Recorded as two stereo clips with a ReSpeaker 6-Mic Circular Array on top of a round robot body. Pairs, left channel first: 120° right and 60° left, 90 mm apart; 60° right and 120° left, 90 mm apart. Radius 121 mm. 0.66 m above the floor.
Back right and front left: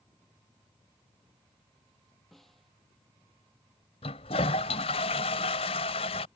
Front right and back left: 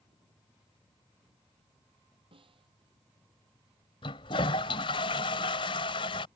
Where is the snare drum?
150° left.